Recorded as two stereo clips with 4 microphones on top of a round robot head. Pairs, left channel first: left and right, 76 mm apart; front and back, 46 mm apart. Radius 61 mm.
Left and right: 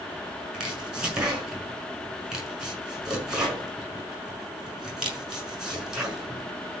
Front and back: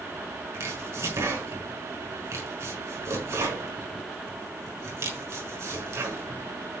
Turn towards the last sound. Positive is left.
turn(degrees=-170)